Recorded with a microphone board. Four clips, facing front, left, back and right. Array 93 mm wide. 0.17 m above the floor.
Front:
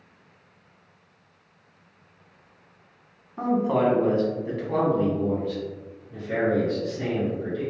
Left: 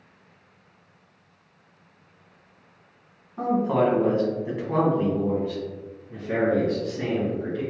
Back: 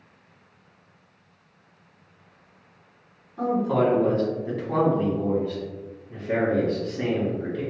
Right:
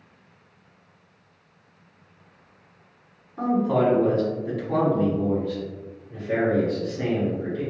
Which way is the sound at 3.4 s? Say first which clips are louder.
Even, even; 15° left.